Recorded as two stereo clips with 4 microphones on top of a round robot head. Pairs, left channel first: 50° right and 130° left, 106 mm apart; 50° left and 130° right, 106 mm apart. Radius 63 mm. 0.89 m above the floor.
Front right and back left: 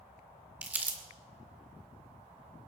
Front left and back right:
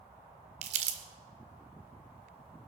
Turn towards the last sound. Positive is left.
turn(degrees=-155)